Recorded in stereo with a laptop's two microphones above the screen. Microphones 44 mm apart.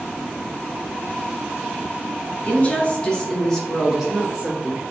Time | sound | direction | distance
2.5 | a woman speaking | 40° left (ahead or behind) | 1.8 m